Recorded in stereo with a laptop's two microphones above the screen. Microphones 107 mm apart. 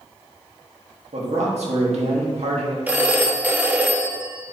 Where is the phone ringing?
15° right (ahead or behind), 0.7 m.